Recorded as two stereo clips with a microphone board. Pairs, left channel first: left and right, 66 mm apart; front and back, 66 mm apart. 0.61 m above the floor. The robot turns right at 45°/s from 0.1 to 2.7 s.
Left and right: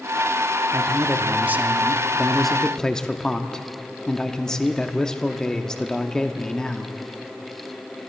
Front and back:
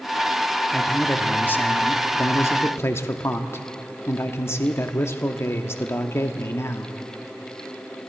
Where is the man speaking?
75° right, 0.9 m; by 7.0 s 15° left, 0.9 m.